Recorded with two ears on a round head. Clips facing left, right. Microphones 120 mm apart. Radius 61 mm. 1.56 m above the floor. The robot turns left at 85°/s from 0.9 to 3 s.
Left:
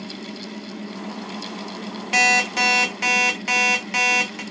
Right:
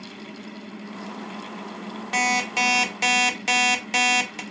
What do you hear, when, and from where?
2.1 s an alarm clock: 20° left, 0.8 m; by 4.4 s 55° right, 0.8 m